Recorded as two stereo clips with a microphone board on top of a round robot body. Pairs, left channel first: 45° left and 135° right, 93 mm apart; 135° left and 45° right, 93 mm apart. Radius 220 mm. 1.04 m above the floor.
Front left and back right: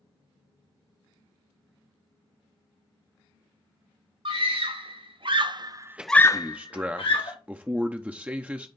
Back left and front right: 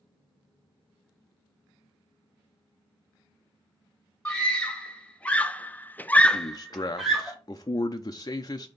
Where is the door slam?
I don't hear a door slam.